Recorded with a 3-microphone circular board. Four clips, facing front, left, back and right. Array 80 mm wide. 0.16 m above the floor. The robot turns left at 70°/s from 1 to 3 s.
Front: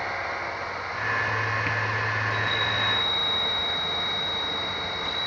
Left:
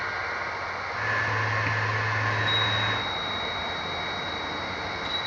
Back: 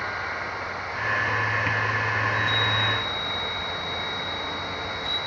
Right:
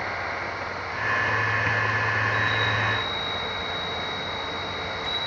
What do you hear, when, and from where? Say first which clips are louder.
2.2 s a chime: right 3 dB, back 2 dB; 145° left, 7 m; by 5.2 s 90° left, 7 m